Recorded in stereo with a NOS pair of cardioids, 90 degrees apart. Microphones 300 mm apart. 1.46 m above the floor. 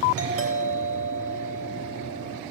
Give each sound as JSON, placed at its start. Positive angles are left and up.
{"t": 0.2, "sound": "a doorbell", "azimuth_deg": -50, "distance_m": 4.0}